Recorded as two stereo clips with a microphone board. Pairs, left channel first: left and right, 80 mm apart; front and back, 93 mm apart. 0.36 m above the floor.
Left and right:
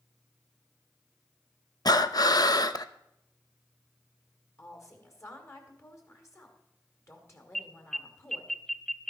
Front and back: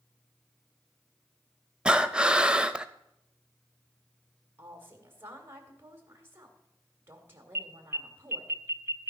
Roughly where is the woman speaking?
Behind left.